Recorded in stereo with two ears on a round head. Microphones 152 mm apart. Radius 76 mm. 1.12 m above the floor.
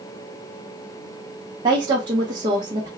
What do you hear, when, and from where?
1.6 s a woman speaking: 25° right (ahead or behind), 0.8 m